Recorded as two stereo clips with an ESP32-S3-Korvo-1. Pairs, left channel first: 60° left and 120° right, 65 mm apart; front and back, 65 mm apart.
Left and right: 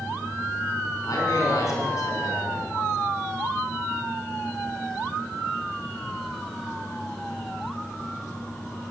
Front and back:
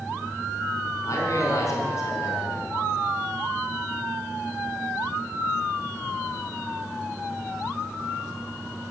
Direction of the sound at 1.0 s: 35° left.